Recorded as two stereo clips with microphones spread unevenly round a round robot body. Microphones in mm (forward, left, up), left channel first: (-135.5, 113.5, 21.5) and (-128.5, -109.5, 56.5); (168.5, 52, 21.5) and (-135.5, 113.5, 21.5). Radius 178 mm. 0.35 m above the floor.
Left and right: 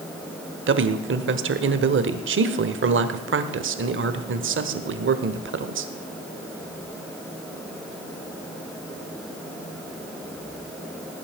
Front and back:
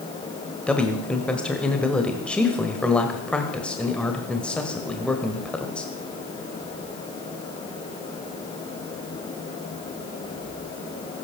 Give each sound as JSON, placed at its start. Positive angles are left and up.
{"t": 0.7, "sound": "a man speaking", "azimuth_deg": -95, "distance_m": 1.4}